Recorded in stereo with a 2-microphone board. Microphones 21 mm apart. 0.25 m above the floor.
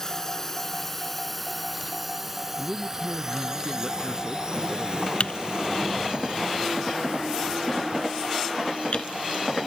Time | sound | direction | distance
0.0 | a drone | 15° left (ahead or behind) | ?
2.6 | a man speaking | 20° right (ahead or behind) | ?
5.2 | typing on a keyboard | 65° left (ahead or behind) | ?